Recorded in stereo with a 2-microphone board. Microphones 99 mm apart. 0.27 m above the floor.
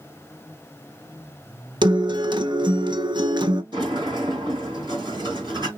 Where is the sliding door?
55° right (ahead or behind), 2.5 m.